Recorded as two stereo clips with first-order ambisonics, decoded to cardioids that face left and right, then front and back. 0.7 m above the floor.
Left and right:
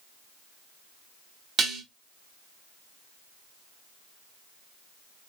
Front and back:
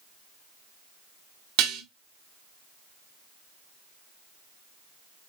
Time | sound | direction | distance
1.6 | dishes clattering | 160° right | 0.8 m